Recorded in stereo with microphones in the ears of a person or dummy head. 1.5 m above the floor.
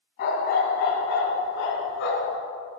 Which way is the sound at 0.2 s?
65° left (ahead or behind).